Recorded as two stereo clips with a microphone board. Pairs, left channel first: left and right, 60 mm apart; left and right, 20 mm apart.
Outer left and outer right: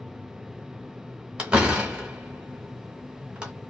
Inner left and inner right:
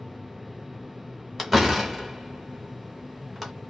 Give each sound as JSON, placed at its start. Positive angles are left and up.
{"t": 1.4, "sound": "a door slam", "side_deg": -15, "distance_m": 1.3}